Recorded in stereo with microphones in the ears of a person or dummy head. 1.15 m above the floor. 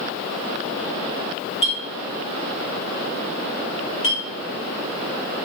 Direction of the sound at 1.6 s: 40° left (ahead or behind).